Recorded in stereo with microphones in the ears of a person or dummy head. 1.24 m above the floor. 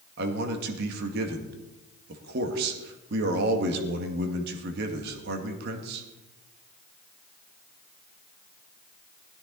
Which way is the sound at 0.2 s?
60° right (ahead or behind).